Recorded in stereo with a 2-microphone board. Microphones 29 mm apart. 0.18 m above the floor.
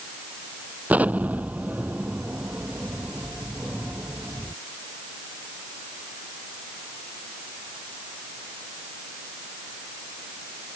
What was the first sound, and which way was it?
An explosion, 65° right (ahead or behind).